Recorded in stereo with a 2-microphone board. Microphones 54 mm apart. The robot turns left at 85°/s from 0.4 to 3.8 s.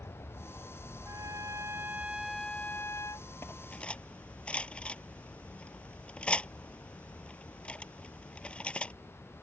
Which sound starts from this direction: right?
A trumpet, at 1.1 s.